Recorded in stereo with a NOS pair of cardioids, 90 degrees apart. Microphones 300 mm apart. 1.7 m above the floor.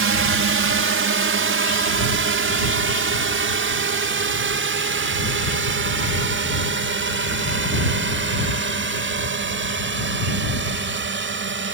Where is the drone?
45° right; by 11.7 s 40° right.